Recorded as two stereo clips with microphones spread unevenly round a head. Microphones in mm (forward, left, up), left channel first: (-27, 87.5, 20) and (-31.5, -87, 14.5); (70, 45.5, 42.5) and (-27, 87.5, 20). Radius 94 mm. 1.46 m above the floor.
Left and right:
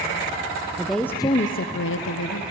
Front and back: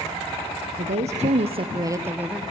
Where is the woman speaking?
175° right, 1.1 m; by 2.4 s 75° left, 1.3 m.